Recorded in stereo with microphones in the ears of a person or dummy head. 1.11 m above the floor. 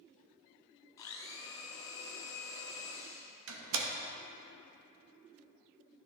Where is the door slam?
85° right, 0.9 m.